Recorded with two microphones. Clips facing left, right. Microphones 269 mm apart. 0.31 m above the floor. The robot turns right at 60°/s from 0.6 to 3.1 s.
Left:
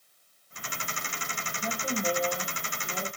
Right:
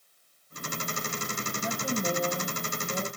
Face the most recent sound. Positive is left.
turn(degrees=-95)